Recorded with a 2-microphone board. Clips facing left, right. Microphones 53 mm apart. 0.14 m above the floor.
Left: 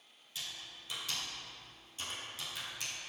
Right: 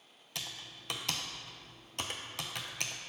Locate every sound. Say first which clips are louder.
0.3 s typing on a keyboard: right 2 dB; 75° right (ahead or behind), 0.8 m